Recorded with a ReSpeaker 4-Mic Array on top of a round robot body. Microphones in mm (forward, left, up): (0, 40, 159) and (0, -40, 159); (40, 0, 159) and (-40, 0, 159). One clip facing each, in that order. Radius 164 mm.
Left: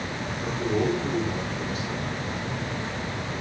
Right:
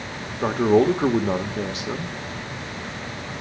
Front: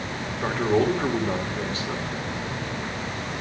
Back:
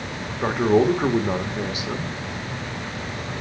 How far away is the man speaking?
About 1.7 m.